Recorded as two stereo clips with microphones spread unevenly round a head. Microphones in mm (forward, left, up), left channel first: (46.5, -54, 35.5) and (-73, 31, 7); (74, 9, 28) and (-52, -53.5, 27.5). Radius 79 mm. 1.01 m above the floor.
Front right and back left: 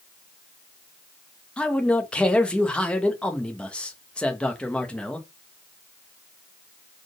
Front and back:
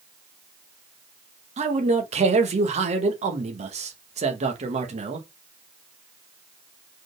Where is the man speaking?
125° right, 1.6 m.